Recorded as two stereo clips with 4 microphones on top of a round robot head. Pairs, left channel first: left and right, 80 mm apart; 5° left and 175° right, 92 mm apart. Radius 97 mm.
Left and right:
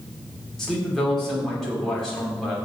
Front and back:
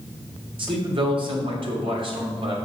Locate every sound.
0.6 s a man speaking: 175° left, 2.5 m